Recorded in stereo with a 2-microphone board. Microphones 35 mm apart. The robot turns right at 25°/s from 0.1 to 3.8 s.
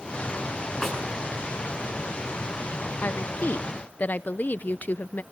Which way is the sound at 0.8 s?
5° left (ahead or behind).